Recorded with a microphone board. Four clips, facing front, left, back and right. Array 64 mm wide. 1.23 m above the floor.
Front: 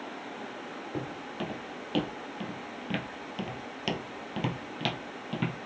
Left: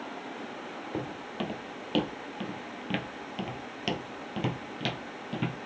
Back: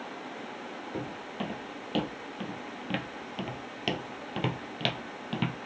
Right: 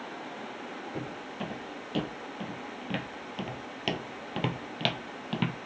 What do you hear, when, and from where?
0.9 s footsteps: 85° left, 1.8 m; by 5.6 s 105° right, 1.7 m